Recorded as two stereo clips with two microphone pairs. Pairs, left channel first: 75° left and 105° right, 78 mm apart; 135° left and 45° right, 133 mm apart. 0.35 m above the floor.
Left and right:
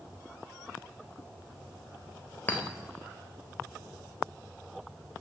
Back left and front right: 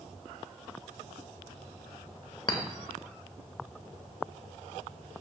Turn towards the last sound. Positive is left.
turn(degrees=120)